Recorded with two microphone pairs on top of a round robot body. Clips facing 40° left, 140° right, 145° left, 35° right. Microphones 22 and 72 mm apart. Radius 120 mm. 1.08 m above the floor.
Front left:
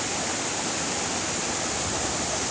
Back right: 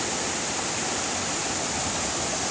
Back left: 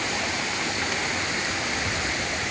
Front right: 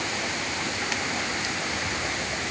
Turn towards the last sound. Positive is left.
No sound to turn to.